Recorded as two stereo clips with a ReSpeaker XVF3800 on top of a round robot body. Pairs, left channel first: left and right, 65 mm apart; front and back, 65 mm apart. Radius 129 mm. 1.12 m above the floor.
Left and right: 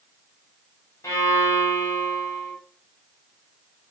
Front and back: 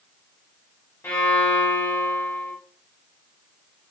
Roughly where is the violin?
Ahead left.